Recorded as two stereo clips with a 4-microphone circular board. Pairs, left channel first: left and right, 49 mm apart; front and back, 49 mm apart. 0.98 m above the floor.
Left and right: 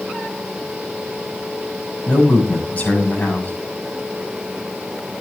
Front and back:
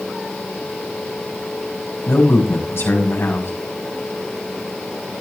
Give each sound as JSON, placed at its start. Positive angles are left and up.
{"t": 2.1, "sound": "a man speaking", "azimuth_deg": 30, "distance_m": 5.5}